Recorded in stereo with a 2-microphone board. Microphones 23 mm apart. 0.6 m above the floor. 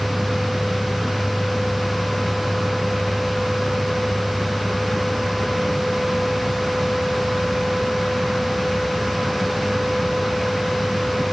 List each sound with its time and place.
Only background noise.